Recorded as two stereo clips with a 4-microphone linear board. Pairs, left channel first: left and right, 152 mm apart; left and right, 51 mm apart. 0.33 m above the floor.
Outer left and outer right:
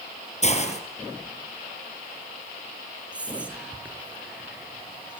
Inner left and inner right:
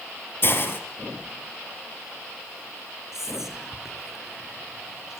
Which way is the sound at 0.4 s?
45° left (ahead or behind).